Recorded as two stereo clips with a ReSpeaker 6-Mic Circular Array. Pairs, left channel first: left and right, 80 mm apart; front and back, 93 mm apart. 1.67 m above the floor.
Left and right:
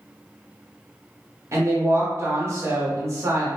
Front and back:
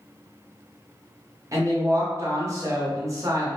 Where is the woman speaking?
135° right, 0.8 m.